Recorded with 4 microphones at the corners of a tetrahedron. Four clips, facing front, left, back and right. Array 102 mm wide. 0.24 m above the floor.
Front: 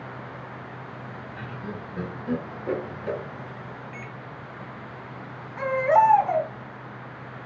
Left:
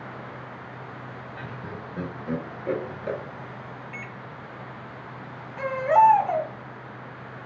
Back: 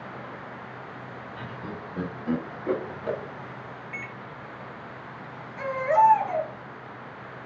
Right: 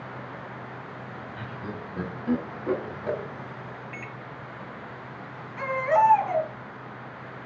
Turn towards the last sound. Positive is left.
turn(degrees=10)